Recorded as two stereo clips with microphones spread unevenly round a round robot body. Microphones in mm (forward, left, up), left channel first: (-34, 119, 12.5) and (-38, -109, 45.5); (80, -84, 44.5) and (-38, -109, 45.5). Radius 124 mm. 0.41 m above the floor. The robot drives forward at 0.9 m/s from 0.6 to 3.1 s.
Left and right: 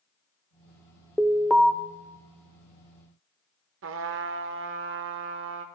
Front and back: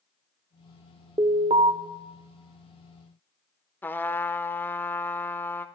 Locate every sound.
1.2 s an alarm: 175° left, 0.7 m
3.8 s a trumpet: 60° right, 0.6 m